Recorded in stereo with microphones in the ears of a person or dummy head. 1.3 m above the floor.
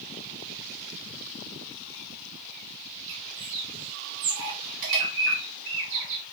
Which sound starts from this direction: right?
A bird, at 3.1 s.